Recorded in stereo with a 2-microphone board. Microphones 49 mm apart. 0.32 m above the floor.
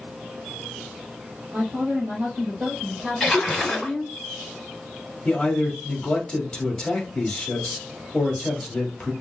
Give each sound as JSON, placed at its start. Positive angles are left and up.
{"t": 1.5, "sound": "a woman speaking", "side_deg": -45, "distance_m": 1.8}
{"t": 3.2, "sound": "a splash", "side_deg": 5, "distance_m": 1.3}
{"t": 5.2, "sound": "a man speaking", "side_deg": 20, "distance_m": 1.4}